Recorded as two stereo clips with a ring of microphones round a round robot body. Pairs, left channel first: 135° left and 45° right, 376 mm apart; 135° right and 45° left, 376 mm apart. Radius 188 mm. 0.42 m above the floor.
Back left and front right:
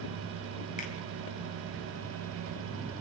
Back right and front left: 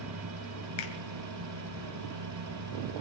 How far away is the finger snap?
About 2 m.